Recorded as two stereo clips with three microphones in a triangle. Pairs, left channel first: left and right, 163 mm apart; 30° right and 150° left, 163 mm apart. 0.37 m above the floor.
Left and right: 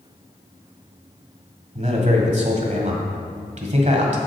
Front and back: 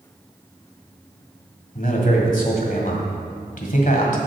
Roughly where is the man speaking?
Ahead right.